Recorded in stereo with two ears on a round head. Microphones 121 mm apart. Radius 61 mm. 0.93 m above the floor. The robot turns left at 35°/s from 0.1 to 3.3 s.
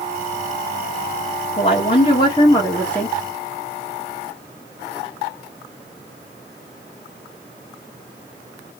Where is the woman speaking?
65° left, 1.4 m; by 3.2 s 5° left, 1.4 m.